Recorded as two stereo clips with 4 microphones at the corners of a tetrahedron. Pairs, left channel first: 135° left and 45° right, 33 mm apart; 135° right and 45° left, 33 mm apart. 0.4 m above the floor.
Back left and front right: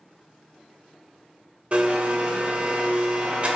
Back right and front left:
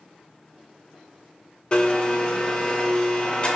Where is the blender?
85° right, 0.6 m.